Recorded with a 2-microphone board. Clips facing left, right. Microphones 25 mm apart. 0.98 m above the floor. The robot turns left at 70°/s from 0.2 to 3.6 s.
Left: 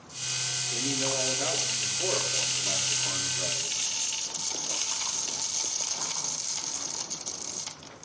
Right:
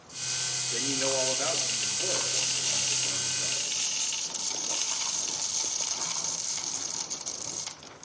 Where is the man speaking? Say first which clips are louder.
Right 2 dB; 125° right, 3.5 m; by 3.8 s 35° left, 3.5 m.